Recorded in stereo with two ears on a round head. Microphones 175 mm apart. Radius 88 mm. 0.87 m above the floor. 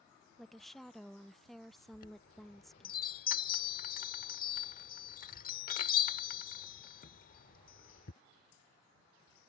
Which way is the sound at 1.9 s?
50° left (ahead or behind).